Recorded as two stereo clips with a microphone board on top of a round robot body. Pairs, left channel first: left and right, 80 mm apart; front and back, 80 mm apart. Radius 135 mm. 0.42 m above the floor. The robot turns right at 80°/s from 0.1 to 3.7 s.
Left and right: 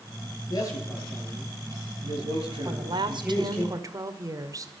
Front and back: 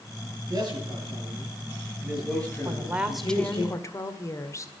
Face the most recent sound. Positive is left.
turn(degrees=-45)